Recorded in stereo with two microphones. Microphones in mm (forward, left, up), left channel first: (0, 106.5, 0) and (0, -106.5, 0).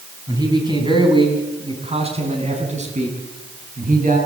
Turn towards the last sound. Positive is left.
turn(degrees=-40)  # may be behind; listen again after turning